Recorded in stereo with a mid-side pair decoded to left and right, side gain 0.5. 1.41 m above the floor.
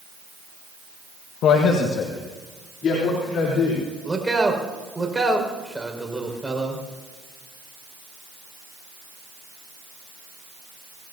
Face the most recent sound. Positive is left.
turn(degrees=-10)